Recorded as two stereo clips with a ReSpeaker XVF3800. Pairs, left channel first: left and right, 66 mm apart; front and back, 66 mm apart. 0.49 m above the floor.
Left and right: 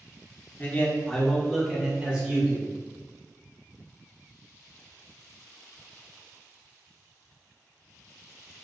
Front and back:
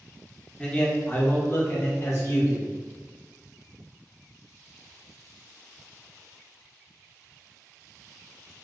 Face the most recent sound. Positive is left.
turn(degrees=-30)